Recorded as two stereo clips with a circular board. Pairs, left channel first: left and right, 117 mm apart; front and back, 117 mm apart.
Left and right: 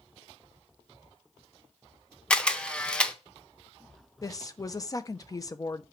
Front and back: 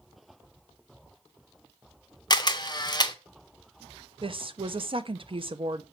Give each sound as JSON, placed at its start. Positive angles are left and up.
{"t": 2.3, "sound": "a camera shutter", "azimuth_deg": 15, "distance_m": 0.6}
{"t": 4.2, "sound": "a woman speaking", "azimuth_deg": 145, "distance_m": 0.6}